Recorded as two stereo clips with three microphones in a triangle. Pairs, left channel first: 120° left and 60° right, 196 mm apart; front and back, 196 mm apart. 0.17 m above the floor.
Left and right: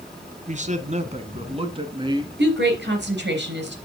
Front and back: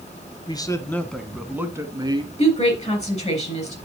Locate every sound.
0.5 s a man speaking: 55° right, 1.3 m; by 2.3 s 120° right, 1.6 m
2.4 s a woman speaking: 50° right, 3.5 m